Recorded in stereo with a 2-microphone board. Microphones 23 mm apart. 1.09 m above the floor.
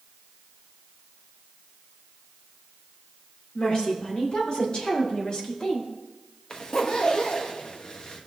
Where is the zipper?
45° left (ahead or behind), 1.1 m.